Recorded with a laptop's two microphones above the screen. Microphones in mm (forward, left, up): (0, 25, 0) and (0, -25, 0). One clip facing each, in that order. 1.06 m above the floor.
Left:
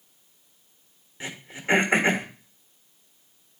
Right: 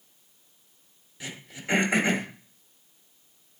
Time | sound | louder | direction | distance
1.2 | throat clearing | left 4 dB | 30° left (ahead or behind) | 1.8 m